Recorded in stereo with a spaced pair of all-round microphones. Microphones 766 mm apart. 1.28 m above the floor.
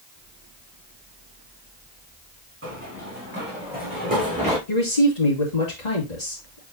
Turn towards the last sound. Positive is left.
turn(degrees=60)  # may be behind; listen again after turning